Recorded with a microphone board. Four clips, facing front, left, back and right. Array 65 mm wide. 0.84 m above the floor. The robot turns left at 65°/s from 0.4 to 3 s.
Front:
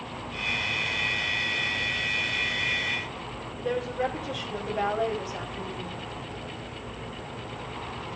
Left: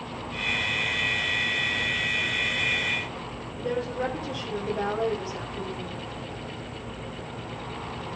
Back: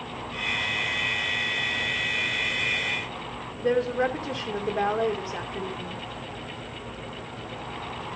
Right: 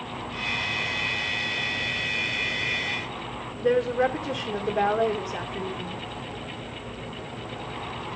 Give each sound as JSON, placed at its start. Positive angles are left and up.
{"t": 3.6, "sound": "a woman speaking", "azimuth_deg": -135, "distance_m": 2.5}